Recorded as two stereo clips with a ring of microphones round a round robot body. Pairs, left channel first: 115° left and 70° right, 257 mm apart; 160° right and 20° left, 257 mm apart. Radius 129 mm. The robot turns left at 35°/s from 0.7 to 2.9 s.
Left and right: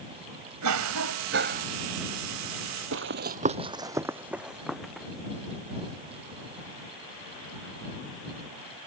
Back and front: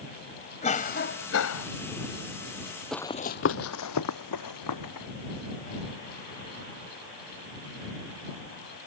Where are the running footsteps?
70° right; by 5.1 s 160° right.